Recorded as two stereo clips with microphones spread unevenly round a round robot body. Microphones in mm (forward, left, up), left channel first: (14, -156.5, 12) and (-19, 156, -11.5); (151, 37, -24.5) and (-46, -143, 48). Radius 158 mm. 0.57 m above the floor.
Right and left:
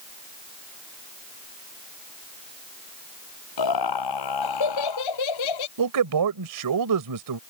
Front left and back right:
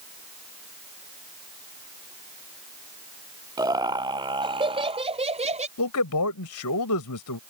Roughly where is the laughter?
Ahead right.